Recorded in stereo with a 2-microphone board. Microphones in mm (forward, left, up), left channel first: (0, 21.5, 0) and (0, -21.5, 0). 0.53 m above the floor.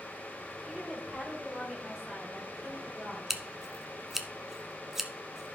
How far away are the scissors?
About 0.9 m.